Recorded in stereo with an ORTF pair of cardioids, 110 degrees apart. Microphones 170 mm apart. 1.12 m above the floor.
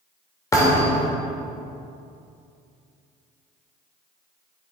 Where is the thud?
20° left, 2 m.